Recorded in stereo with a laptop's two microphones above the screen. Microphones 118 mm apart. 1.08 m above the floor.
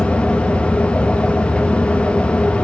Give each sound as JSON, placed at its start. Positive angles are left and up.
{"t": 0.0, "sound": "a fan", "side_deg": 10, "distance_m": 0.7}